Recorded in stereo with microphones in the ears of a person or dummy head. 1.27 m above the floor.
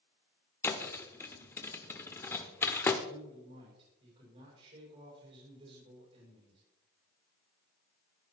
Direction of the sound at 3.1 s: 35° right (ahead or behind).